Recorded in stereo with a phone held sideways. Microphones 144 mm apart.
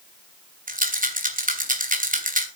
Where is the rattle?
70° right (ahead or behind), 3 m.